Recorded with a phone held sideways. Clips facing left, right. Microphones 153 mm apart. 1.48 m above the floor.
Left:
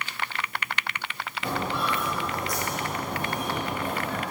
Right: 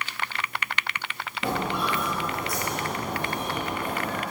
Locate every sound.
1.4 s footsteps: 20° right (ahead or behind), 3 m; by 4.2 s 30° left (ahead or behind), 2.5 m